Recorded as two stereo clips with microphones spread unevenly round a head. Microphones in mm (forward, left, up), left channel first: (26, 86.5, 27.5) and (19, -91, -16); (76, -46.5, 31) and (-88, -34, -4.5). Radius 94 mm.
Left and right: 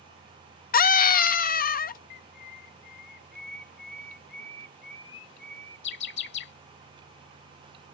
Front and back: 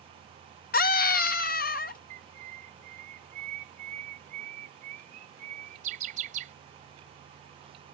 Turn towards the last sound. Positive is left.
turn(degrees=120)